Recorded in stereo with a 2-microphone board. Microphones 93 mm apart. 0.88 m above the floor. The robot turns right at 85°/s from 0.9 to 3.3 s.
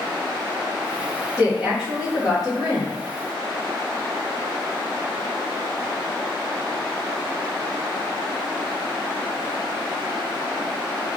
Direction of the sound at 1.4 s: 35° right.